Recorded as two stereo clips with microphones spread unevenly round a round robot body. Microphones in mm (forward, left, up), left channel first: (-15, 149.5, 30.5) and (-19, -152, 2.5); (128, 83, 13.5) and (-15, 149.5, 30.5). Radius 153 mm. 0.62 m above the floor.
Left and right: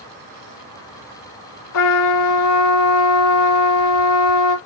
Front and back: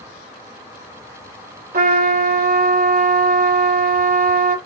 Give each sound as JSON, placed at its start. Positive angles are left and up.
{"t": 1.7, "sound": "a trumpet", "azimuth_deg": 125, "distance_m": 2.0}